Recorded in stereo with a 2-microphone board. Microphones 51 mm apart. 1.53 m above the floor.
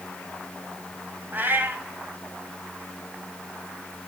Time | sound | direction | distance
1.3 | a cat meowing | 35° right (ahead or behind) | 2.0 m